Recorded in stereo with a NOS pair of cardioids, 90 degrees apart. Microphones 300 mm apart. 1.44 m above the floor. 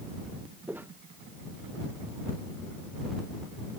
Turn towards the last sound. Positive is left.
turn(degrees=-5)